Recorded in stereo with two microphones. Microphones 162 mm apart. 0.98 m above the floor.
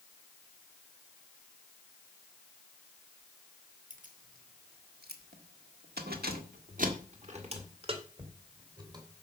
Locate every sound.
3.9 s keys jangling: 55° right (ahead or behind), 2 m; by 9.2 s 25° right (ahead or behind), 3 m